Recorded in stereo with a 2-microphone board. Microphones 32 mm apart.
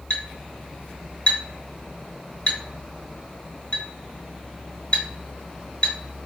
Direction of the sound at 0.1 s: 35° left (ahead or behind).